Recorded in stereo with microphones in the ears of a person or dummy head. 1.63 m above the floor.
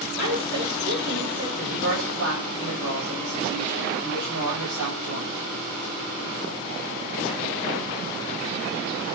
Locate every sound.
0.2 s a woman speaking: 70° right (ahead or behind), 6.5 m
1.6 s a woman speaking: 85° right, 7 m